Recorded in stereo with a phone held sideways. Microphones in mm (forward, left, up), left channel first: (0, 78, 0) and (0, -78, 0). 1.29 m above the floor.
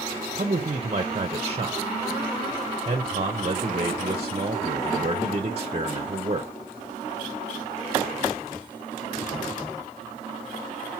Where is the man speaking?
40° right (ahead or behind), 0.7 m.